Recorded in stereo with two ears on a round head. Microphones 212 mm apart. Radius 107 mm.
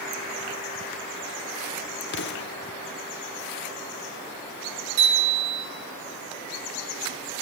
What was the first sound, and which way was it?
An explosion, 45° left (ahead or behind).